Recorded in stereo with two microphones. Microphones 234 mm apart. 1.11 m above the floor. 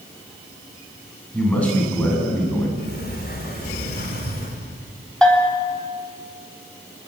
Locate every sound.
1.3 s a man speaking: 5° left (ahead or behind), 8 m; by 2.7 s 10° left (ahead or behind), 7.5 m
2.8 s a sliding door: 45° left (ahead or behind), 4 m
5.2 s a bell: 5° left (ahead or behind), 4 m